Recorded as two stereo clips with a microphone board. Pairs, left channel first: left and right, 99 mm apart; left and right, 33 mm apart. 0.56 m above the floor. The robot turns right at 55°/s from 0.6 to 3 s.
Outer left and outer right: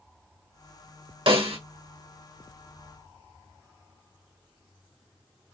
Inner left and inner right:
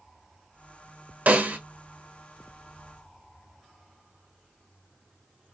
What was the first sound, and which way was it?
A snare drum, 60° right (ahead or behind).